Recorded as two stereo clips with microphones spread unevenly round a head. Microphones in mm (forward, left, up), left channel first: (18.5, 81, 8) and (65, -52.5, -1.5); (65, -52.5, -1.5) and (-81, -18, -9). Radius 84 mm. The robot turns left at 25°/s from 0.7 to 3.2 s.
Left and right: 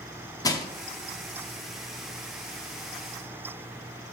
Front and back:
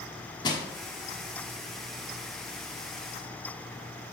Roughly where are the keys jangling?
I don't hear keys jangling.